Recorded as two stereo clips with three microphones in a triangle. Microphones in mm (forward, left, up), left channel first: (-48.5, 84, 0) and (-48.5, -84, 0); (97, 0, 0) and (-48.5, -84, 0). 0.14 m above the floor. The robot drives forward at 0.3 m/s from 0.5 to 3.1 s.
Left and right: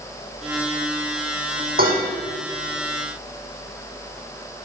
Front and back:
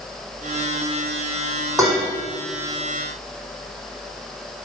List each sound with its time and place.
1.8 s dishes clattering: 80° right, 4 m